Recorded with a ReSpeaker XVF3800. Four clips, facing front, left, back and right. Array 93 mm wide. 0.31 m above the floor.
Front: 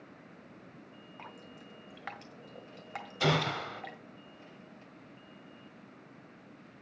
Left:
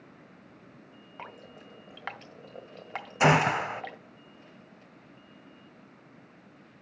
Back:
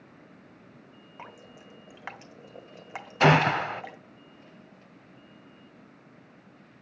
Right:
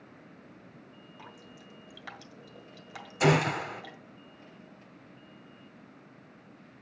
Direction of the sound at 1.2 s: 110° left.